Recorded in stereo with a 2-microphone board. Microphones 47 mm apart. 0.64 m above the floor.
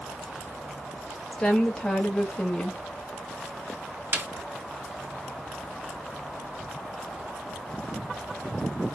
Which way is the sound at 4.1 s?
45° right (ahead or behind).